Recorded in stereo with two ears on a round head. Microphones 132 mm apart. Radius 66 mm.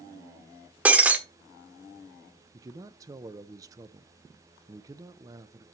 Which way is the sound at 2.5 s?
25° right (ahead or behind).